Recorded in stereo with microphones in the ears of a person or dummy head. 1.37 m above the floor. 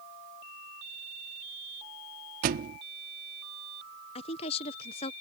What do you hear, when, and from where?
2.4 s a thud: 40° right (ahead or behind)
4.2 s a woman speaking: 35° left (ahead or behind)